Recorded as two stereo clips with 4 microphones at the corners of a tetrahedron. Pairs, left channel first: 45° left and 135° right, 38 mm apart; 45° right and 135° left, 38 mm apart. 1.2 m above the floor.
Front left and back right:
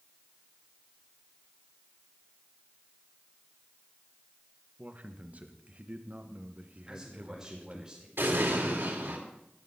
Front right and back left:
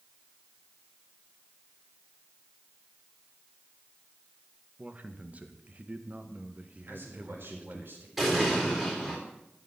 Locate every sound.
4.8 s a man speaking: straight behind, 1.5 m
6.9 s a man speaking: 155° left, 4.5 m
8.2 s an explosion: 145° right, 3.5 m